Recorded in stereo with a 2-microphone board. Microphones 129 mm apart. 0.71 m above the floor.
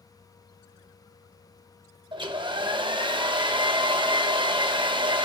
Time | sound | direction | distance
2.1 | a hair dryer | 40° right (ahead or behind) | 0.6 m